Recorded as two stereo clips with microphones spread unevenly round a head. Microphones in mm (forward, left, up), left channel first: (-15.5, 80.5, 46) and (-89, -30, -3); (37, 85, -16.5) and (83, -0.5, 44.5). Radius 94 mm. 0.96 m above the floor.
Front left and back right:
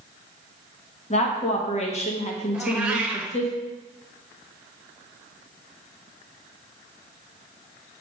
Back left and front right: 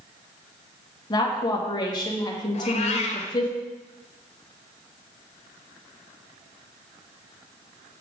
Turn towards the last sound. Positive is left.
turn(degrees=115)